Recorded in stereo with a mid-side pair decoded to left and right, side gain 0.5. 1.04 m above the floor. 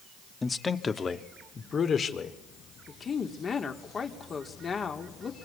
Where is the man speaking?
25° left, 1.7 m; by 2.4 s 45° left, 3 m.